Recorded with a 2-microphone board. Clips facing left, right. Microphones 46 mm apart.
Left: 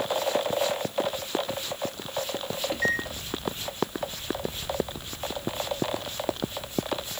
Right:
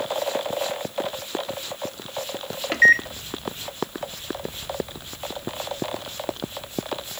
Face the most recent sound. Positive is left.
turn(degrees=-75)  # may be behind; listen again after turning